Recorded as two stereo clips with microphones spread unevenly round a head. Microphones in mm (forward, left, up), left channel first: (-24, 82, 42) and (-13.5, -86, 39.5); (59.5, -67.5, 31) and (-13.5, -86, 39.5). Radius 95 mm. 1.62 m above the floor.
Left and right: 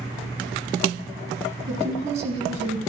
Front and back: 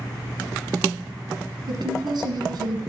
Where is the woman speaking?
140° right, 1.6 m.